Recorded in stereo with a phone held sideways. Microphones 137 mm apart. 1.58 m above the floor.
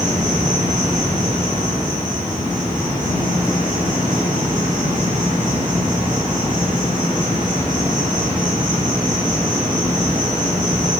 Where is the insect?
70° right (ahead or behind), 1.4 m.